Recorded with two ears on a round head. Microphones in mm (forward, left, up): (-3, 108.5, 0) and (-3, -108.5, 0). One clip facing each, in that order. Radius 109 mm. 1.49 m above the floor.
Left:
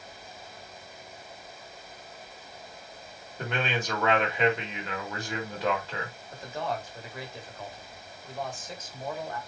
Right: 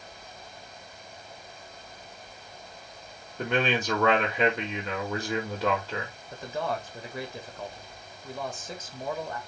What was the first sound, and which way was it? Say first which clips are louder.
A man speaking: right 4 dB; 85° right.